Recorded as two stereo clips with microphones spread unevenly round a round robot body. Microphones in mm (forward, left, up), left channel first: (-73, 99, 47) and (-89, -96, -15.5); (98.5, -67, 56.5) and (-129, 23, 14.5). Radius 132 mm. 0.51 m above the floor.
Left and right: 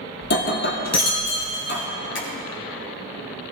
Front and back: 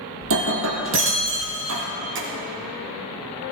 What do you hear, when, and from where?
0.2 s breaking glass: 110° left, 2.5 m
2.1 s tapping: 110° left, 4 m